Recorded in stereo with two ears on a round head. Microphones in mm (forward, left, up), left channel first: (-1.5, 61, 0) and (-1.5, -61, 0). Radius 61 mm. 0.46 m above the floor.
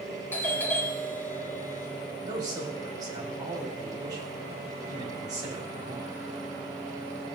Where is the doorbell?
15° left (ahead or behind), 2 m.